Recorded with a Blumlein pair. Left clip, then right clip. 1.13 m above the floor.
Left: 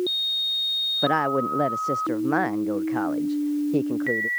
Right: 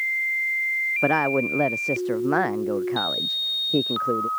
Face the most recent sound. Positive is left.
turn(degrees=-5)